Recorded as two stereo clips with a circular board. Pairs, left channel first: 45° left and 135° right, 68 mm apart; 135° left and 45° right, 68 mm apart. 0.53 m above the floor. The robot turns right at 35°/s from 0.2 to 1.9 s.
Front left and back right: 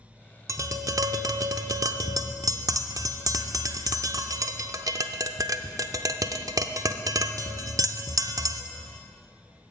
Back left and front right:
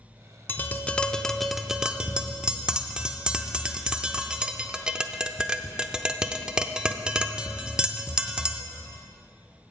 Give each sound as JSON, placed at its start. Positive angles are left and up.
{"t": 0.5, "sound": "tapping", "azimuth_deg": -170, "distance_m": 0.5}